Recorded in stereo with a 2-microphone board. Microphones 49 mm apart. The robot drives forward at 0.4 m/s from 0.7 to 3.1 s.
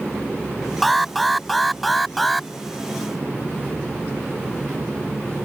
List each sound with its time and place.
0.8 s an alarm: 5° left (ahead or behind)